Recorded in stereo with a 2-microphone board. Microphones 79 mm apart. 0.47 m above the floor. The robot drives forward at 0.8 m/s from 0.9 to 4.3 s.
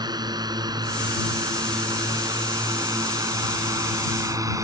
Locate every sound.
0.0 s a drone: 60° right (ahead or behind); by 4.6 s 45° right (ahead or behind)